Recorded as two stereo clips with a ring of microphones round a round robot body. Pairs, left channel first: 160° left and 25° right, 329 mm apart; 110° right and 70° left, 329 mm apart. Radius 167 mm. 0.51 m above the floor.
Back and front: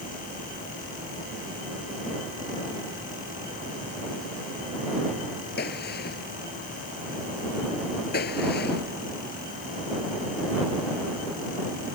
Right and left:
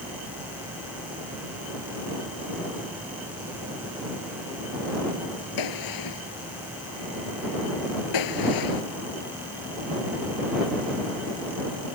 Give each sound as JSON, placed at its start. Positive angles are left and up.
{"t": 5.6, "sound": "a gunshot", "azimuth_deg": -140}